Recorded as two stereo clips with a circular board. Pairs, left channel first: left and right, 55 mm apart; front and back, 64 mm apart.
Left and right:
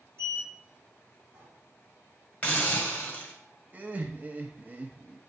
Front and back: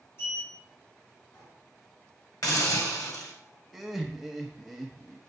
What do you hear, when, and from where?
0.2 s a sliding door: 45° right, 4 m
2.4 s a hiss: 25° left, 2.5 m
3.7 s laughter: 95° right, 0.7 m